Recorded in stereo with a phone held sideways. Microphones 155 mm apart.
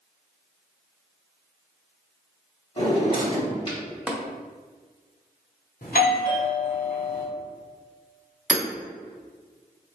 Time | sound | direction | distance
2.8 | a drawer | 35° left (ahead or behind) | 1.9 m
4.1 | tapping | 5° right (ahead or behind) | 0.6 m
5.8 | a doorbell | 65° left (ahead or behind) | 1.0 m
8.5 | hammering | 5° right (ahead or behind) | 1.0 m